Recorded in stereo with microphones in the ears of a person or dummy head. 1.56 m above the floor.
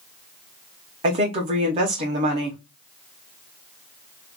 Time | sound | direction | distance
1.0 | a woman speaking | 35° right (ahead or behind) | 0.8 m